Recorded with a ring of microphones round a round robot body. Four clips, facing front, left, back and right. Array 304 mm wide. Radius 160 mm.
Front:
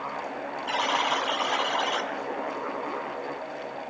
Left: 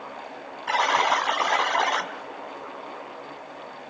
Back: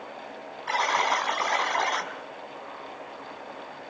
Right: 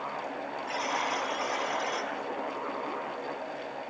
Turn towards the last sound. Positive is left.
turn(degrees=100)